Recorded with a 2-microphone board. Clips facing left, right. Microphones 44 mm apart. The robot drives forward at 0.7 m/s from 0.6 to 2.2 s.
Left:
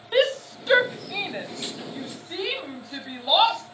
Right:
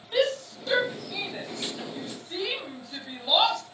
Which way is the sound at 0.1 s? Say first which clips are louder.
Left 4 dB; 35° left (ahead or behind).